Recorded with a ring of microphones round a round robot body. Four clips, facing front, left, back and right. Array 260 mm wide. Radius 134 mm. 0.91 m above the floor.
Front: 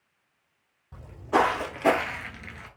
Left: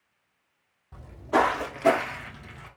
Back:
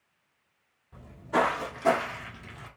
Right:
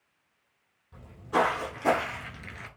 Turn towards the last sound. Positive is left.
turn(degrees=-75)